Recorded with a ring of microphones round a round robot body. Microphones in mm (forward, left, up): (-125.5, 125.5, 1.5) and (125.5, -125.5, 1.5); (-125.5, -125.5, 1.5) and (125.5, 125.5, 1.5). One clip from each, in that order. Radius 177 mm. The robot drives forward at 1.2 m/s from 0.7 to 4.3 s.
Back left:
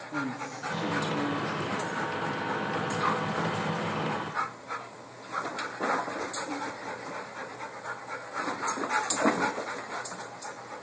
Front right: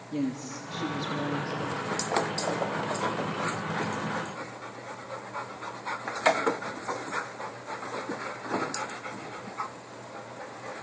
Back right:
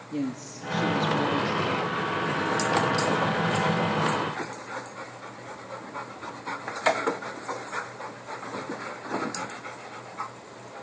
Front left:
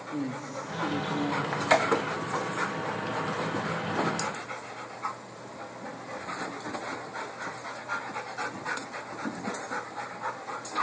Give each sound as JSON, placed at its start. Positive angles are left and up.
{"t": 0.1, "sound": "a woman speaking", "azimuth_deg": -100, "distance_m": 1.5}